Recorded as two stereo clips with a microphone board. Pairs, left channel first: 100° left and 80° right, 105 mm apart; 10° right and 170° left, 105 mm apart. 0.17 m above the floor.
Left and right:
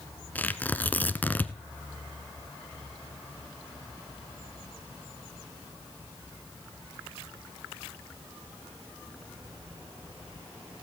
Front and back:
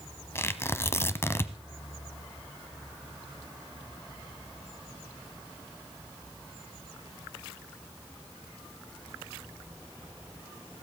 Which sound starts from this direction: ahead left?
Tearing paper, at 0.3 s.